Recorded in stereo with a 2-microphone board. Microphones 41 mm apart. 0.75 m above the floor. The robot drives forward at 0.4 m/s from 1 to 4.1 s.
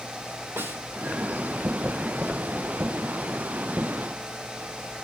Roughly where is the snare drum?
Right.